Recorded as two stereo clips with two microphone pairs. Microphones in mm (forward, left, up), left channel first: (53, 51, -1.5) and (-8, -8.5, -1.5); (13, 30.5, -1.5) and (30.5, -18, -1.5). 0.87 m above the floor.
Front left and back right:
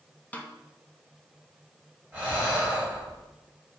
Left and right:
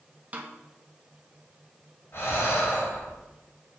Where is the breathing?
155° left, 4 m.